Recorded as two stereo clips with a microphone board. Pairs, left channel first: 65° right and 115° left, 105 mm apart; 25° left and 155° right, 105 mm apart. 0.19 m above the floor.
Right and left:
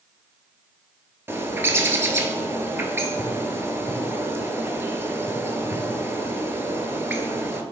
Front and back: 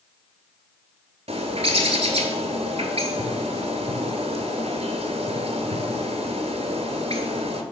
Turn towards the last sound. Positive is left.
turn(degrees=180)